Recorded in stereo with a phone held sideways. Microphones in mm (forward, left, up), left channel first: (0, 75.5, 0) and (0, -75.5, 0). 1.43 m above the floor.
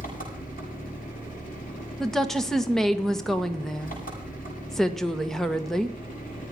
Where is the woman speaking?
Centre (ahead or behind), 1.4 m.